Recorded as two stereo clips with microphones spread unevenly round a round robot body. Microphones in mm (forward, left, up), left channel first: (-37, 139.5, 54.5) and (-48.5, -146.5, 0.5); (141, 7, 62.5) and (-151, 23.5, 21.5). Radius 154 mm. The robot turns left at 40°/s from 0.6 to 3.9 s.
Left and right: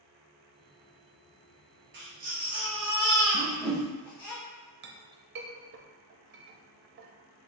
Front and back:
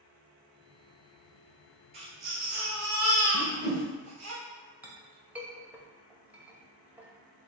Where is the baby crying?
145° right, 1.7 m; by 4.3 s 140° left, 1.7 m.